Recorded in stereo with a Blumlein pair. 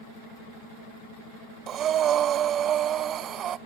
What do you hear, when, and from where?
1.7 s breathing: 30° right, 0.5 m